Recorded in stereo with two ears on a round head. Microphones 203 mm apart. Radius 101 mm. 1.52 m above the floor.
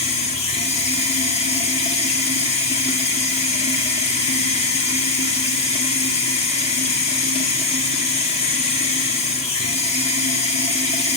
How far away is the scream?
I don't hear a scream.